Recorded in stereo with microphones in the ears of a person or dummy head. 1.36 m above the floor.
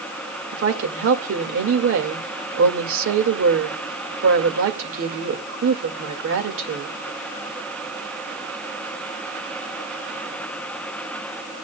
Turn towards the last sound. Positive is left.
turn(degrees=-65)  # may be behind; listen again after turning